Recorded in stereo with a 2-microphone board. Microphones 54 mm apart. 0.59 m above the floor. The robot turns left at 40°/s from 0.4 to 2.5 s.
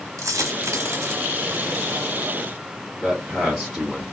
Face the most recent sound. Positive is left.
turn(degrees=-10)  # may be behind; listen again after turning